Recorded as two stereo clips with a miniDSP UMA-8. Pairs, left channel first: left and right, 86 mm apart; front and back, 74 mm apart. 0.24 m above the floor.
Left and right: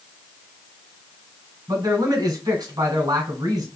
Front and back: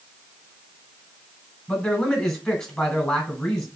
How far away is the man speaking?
About 1.4 m.